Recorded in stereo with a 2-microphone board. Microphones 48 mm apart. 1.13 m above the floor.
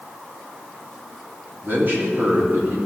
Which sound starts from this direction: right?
A man speaking, at 1.6 s.